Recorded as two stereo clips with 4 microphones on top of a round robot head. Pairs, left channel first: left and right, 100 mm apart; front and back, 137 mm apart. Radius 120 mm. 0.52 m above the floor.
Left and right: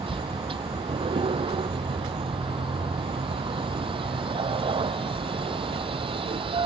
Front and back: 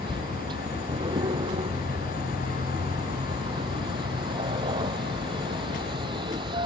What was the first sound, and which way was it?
A vehicle, 120° right.